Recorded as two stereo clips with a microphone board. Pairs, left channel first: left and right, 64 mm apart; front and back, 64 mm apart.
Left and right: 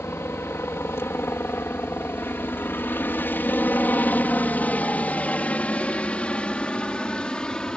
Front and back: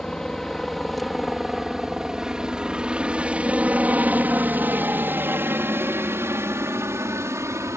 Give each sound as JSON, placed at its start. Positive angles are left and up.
{"t": 0.0, "sound": "a helicopter", "azimuth_deg": 75}